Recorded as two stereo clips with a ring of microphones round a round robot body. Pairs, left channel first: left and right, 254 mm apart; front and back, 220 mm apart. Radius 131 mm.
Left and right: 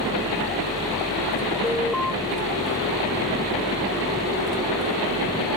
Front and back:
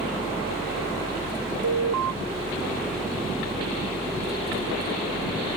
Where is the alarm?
Straight behind.